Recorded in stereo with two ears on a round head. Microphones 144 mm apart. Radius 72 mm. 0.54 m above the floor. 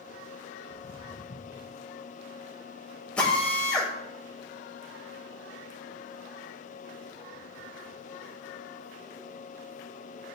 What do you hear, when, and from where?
0.7 s footsteps: 40° left (ahead or behind), 1.3 m
3.2 s a drill: 5° left (ahead or behind), 2 m